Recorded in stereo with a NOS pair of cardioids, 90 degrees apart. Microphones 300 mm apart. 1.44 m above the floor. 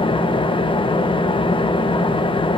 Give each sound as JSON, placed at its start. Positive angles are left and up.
{"t": 0.0, "sound": "an engine running", "azimuth_deg": 15, "distance_m": 1.1}